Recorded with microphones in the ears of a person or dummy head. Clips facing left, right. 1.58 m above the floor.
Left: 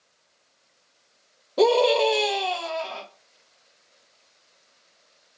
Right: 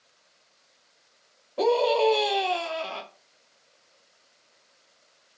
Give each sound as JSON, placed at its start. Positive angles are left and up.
{"t": 1.6, "sound": "a scream", "side_deg": 45, "distance_m": 0.7}